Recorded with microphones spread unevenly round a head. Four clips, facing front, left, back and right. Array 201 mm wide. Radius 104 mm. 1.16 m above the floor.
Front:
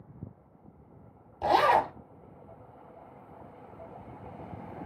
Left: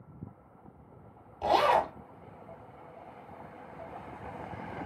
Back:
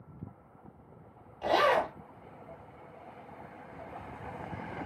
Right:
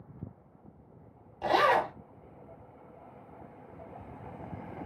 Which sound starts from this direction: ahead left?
A zipper, at 1.4 s.